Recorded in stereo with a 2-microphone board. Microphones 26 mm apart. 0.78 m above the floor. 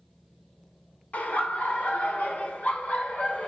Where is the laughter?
80° left, 2 m; by 3.5 s 65° left (ahead or behind), 3 m.